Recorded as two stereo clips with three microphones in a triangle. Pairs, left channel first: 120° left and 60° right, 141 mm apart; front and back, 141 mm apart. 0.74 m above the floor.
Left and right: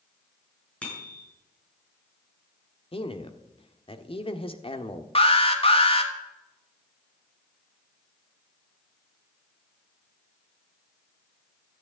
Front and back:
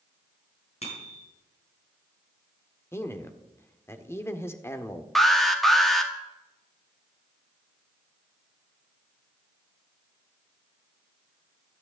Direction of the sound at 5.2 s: 90° left.